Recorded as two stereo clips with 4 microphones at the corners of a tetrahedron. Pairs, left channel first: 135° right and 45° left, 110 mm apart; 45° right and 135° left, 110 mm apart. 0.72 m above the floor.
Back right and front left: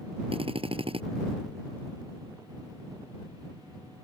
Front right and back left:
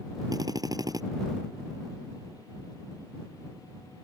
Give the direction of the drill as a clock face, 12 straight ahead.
9 o'clock.